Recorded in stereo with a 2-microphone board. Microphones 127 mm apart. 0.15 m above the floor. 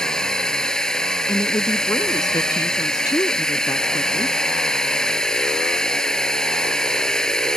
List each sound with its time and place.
0.0 s a drone: 5° left (ahead or behind)
1.3 s a woman speaking: 30° left (ahead or behind)